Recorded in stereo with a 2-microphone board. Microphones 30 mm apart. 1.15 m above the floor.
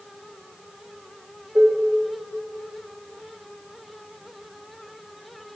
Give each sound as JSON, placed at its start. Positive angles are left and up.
{"t": 1.6, "sound": "dishes clattering", "side_deg": -85, "distance_m": 1.3}